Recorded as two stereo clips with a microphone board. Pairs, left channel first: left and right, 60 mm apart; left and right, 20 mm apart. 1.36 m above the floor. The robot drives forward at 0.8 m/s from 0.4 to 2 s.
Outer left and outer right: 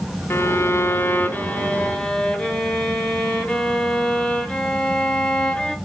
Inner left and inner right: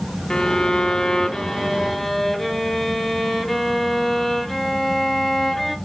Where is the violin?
40° left (ahead or behind), 0.5 m; by 5.8 s 15° left (ahead or behind), 1.2 m.